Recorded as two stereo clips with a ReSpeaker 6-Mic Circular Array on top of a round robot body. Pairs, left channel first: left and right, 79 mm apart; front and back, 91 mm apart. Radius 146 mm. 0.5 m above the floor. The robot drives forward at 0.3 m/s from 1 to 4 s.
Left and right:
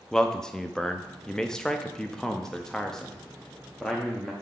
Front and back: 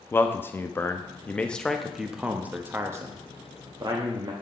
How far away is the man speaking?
About 0.8 m.